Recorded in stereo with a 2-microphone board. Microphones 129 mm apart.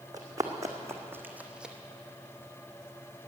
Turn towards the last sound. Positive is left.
turn(degrees=-5)  # may be behind; listen again after turning